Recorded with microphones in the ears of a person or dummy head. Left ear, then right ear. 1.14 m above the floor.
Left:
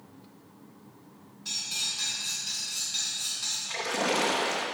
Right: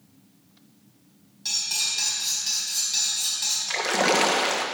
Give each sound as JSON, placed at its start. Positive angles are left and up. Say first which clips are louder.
{"t": 1.4, "sound": "cutlery clinking", "louder": "right 5 dB", "side_deg": -55, "distance_m": 4.5}
{"t": 3.7, "sound": "a splash", "louder": "right 7 dB", "side_deg": -40, "distance_m": 1.1}